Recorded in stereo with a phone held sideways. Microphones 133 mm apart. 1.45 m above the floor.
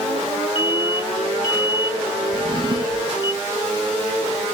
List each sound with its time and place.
0.6 s an alarm: 35° left (ahead or behind)
2.3 s a drawer: 35° right (ahead or behind)